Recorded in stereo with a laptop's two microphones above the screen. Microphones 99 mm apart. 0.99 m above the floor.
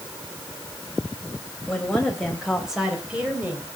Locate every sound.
1.7 s a woman speaking: 5° left (ahead or behind), 4 m; by 3.7 s 15° right (ahead or behind), 4 m